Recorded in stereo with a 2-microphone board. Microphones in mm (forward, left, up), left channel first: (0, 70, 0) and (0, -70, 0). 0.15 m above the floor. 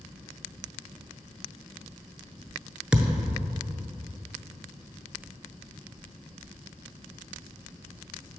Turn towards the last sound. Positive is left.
turn(degrees=-5)  # may be behind; listen again after turning